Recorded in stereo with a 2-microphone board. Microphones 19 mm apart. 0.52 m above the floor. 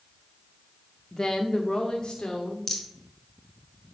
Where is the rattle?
25° left (ahead or behind), 1.5 m.